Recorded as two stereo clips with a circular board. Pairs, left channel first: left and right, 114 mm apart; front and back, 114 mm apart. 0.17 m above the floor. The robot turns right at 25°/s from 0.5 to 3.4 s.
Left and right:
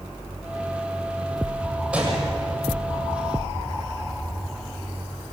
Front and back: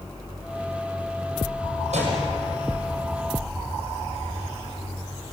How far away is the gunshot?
About 7 m.